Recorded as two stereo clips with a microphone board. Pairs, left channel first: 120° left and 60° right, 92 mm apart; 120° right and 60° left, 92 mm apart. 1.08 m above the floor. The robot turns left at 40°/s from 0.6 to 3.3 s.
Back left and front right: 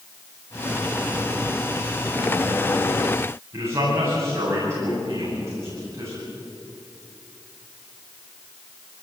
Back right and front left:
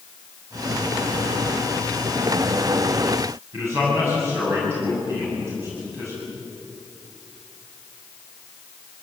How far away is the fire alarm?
I don't hear a fire alarm.